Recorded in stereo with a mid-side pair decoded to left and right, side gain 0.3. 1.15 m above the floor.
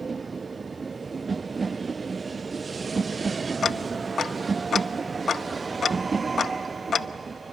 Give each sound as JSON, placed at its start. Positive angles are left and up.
{"t": 3.6, "sound": "ticking", "azimuth_deg": 55, "distance_m": 0.7}